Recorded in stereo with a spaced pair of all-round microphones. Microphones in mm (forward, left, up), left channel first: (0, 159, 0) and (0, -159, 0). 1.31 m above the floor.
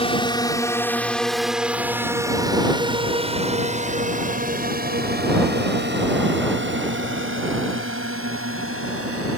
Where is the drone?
20° left (ahead or behind); by 9.4 s 45° right (ahead or behind).